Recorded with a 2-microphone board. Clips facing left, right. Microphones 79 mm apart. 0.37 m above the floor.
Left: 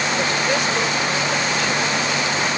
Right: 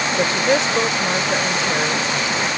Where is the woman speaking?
30° right (ahead or behind).